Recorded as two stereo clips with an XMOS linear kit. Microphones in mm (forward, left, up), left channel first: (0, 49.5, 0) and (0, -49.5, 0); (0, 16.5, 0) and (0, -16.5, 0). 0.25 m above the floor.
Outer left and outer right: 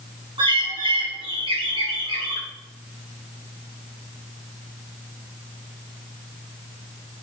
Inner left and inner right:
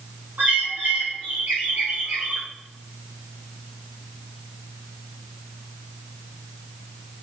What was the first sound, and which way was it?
A bird, 55° right (ahead or behind).